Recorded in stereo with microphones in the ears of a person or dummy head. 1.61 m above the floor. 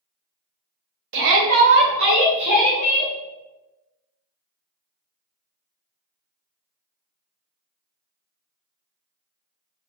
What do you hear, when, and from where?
1.1 s a shout: 65° right (ahead or behind), 0.8 m; by 3.1 s 55° right (ahead or behind), 1.7 m